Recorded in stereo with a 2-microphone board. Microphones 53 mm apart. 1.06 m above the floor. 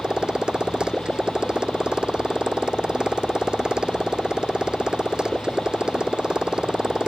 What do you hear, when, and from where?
0.0 s a motorcycle: 15° right (ahead or behind)